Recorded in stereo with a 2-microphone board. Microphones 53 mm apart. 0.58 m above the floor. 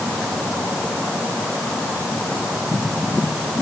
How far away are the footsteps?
I don't hear footsteps.